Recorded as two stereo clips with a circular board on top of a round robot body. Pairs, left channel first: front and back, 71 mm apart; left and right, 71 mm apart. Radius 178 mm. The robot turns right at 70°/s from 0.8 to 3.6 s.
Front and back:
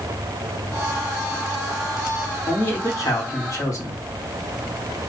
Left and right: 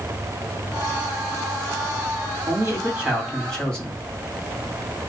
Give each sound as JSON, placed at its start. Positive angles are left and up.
{"t": 2.5, "sound": "a man speaking", "azimuth_deg": -65, "distance_m": 2.0}